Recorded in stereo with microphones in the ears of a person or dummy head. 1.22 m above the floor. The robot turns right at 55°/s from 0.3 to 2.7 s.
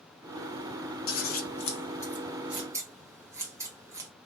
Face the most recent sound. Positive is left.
turn(degrees=-20)  # may be behind; listen again after turning